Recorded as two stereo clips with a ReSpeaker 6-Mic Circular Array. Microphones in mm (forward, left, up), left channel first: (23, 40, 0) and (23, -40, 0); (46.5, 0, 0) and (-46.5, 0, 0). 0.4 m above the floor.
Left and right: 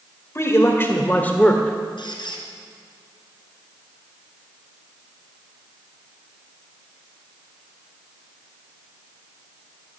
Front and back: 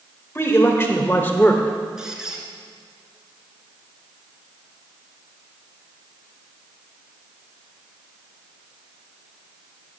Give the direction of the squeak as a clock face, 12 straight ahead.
9 o'clock.